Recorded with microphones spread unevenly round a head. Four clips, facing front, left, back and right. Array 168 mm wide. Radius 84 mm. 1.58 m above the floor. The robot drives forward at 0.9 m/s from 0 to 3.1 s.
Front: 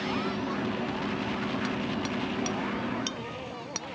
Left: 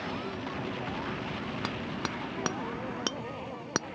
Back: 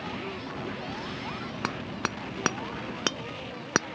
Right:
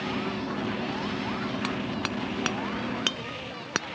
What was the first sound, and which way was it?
Hammering, 175° left.